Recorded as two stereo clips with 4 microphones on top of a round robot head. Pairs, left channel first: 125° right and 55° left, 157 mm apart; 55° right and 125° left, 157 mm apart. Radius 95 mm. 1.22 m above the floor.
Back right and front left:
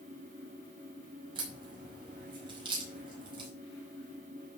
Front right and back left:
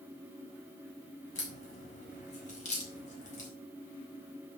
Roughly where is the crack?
Ahead.